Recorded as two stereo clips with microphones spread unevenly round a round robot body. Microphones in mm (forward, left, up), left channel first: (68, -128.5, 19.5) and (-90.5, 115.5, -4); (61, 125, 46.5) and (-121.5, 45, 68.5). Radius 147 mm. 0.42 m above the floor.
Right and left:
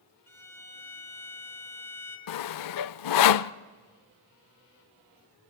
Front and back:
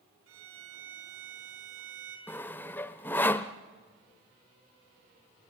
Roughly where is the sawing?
Ahead right.